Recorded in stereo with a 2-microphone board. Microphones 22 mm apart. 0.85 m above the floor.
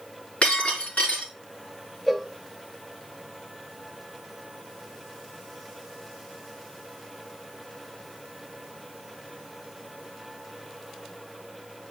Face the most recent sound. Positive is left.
turn(degrees=0)  # may be behind; listen again after turning